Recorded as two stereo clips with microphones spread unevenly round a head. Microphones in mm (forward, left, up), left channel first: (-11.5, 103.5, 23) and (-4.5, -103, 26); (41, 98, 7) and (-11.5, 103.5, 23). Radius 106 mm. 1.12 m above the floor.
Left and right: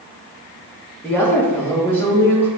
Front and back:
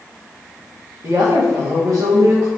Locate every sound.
1.0 s a woman speaking: 170° left, 2.5 m